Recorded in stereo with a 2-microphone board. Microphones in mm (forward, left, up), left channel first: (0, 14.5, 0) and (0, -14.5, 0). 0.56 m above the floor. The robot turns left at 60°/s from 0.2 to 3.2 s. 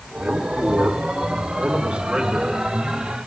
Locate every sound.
0.2 s a man speaking: 35° right, 5 m; by 2.7 s 175° left, 5 m